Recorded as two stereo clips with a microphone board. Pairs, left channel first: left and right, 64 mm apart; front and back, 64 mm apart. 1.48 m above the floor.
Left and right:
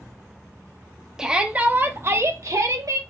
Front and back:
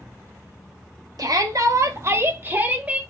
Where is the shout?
170° right, 1.1 m; by 3.0 s 110° right, 1.4 m.